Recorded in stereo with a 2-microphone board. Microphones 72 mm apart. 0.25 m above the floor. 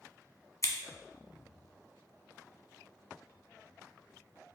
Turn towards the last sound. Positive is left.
turn(degrees=50)  # may be behind; listen again after turning